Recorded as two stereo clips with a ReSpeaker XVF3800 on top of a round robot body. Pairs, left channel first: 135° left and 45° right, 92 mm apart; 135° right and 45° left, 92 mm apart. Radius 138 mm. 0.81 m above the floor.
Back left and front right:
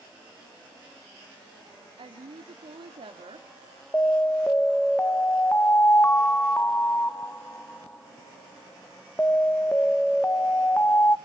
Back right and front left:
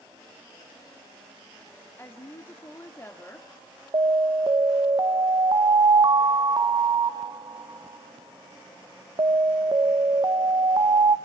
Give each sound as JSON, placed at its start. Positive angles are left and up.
{"t": 2.0, "sound": "a woman speaking", "azimuth_deg": -70, "distance_m": 2.0}
{"t": 3.9, "sound": "an alarm", "azimuth_deg": 70, "distance_m": 1.1}